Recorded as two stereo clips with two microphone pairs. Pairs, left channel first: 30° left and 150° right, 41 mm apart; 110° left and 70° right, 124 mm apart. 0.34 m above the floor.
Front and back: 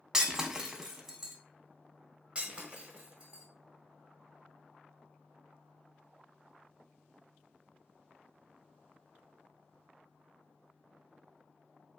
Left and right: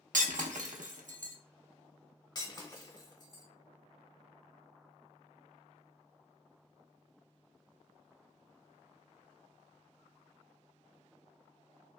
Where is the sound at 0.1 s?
80° right, 0.5 m.